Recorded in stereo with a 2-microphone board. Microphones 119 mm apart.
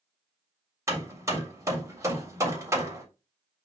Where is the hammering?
25° right (ahead or behind), 3.5 m.